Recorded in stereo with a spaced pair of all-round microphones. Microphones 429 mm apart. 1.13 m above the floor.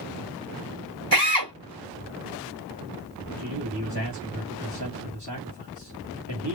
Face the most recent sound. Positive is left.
turn(degrees=-70)  # may be behind; listen again after turning